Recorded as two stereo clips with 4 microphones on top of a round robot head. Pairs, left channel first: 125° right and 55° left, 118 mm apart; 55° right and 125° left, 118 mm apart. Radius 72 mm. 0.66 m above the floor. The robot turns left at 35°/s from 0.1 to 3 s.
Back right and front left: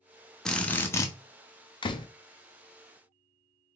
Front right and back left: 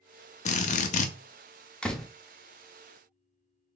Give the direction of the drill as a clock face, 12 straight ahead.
1 o'clock.